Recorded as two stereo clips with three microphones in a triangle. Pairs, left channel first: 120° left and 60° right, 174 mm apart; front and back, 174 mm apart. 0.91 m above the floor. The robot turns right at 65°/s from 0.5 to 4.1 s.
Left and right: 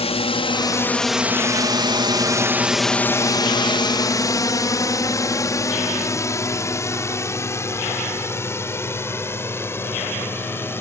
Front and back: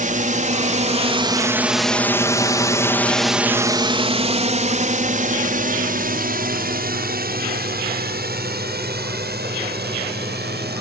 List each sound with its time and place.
0.0 s a drone: 165° left; by 10.8 s 165° right